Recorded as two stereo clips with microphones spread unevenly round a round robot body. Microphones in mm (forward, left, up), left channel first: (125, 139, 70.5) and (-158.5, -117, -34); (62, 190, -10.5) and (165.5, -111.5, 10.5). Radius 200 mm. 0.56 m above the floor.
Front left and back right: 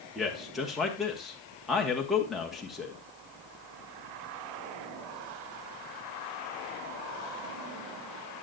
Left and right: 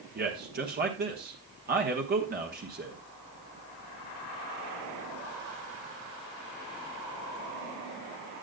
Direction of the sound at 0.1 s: 85° right.